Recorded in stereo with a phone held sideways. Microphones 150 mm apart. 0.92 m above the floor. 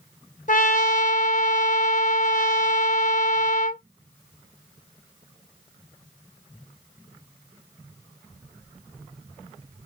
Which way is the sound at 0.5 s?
60° left (ahead or behind).